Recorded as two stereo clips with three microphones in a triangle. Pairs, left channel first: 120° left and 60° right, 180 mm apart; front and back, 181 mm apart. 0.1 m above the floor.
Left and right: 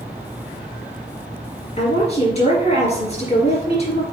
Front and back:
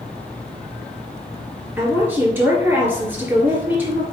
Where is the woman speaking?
110° left, 1.7 m.